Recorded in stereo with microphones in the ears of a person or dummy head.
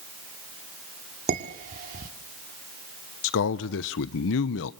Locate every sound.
1.3 s dishes clattering: 50° right (ahead or behind), 2.5 m
3.2 s a man speaking: 70° left (ahead or behind), 0.8 m